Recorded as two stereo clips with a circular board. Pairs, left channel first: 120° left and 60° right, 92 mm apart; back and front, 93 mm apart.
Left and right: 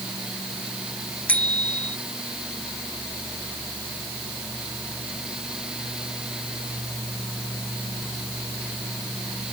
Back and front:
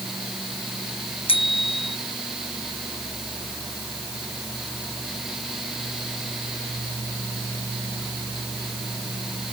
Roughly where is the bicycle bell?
Behind.